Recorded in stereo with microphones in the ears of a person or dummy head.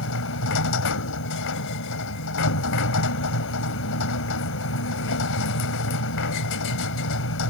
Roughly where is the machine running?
Left.